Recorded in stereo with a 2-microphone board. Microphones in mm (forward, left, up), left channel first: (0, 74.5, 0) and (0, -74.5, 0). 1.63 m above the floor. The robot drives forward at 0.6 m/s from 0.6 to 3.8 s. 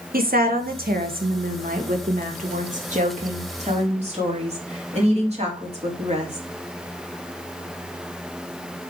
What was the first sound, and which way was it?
A woman speaking, 80° right.